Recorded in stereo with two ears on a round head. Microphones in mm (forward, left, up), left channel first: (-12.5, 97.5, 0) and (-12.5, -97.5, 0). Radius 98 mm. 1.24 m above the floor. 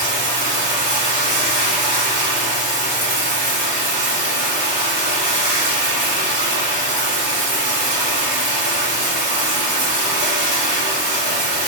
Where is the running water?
40° right (ahead or behind), 1.9 m.